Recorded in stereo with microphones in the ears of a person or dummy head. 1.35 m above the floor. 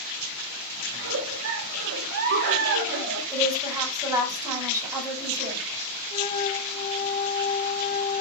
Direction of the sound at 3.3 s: 15° right (ahead or behind).